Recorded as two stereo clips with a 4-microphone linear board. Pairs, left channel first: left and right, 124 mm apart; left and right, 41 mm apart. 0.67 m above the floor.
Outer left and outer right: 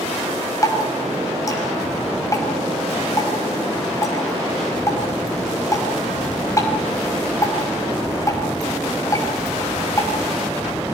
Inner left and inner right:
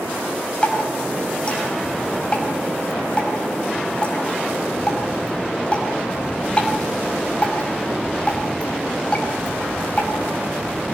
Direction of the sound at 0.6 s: 25° left (ahead or behind).